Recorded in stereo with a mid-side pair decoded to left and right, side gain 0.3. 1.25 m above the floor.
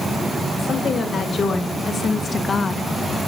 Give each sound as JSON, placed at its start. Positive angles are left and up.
{"t": 0.6, "sound": "a woman speaking", "azimuth_deg": 70, "distance_m": 2.5}